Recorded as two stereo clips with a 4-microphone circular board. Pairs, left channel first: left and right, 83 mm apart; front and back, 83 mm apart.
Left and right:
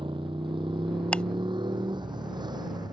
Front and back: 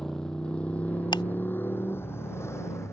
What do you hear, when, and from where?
0.0 s a motorcycle: 85° right; by 2.9 s 55° right
1.1 s ticking: 15° left